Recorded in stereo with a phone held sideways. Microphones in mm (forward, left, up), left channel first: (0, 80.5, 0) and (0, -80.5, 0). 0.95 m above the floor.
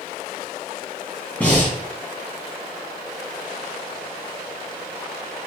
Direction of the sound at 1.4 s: 10° left (ahead or behind).